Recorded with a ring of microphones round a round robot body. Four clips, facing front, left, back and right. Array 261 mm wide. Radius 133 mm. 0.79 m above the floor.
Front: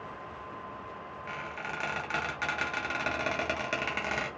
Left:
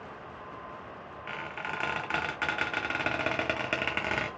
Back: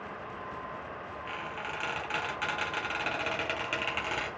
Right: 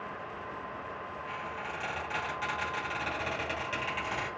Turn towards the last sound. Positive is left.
turn(degrees=75)